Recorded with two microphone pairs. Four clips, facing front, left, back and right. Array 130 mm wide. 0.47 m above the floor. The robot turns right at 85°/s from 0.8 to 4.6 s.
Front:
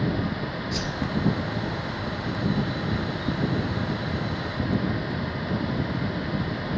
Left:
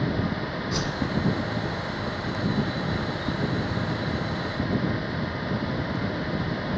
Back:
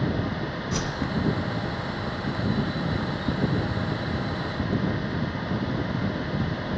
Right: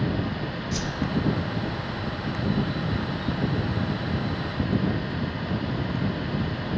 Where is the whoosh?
130° left, 1.2 m; by 1.1 s 155° left, 1.2 m.